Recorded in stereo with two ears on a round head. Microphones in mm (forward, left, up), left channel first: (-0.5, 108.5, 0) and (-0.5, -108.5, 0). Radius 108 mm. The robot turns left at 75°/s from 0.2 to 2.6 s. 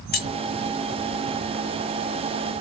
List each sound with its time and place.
0.1 s keys jangling: 40° left (ahead or behind), 1.1 m; by 0.3 s 45° left (ahead or behind), 1.1 m